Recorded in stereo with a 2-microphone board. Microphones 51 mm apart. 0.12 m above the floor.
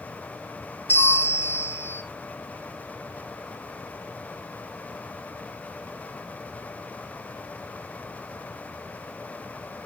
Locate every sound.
0.9 s a bell: 25° right (ahead or behind), 2.5 m